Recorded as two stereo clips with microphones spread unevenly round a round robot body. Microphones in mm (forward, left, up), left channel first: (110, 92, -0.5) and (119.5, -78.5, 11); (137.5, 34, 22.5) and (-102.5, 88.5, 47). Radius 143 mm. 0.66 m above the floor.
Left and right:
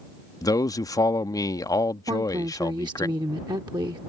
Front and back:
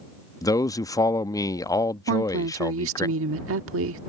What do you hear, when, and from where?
0.4 s a man speaking: 45° left
2.1 s a woman speaking: 160° right